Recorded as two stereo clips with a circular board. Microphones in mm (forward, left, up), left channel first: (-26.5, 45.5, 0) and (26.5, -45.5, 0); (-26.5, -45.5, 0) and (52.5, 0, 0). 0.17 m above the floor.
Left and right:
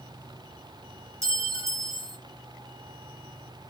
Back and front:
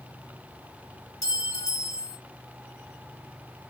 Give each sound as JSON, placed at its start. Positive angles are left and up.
{"t": 1.2, "sound": "a clink", "azimuth_deg": -115, "distance_m": 1.3}